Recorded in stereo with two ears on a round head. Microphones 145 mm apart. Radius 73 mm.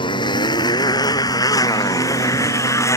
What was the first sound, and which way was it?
A motorcycle, 30° left (ahead or behind).